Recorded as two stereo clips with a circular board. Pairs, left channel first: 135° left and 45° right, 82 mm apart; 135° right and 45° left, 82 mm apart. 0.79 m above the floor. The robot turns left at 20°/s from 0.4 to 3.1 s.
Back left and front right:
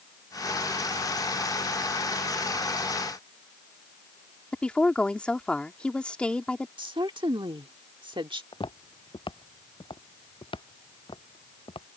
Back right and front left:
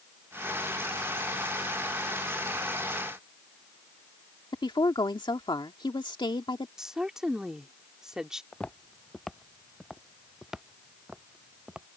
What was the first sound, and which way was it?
A woman speaking, 150° right.